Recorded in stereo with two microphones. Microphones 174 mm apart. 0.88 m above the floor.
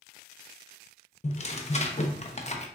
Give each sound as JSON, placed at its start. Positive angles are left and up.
{"t": 1.2, "sound": "tearing paper", "side_deg": 40, "distance_m": 0.7}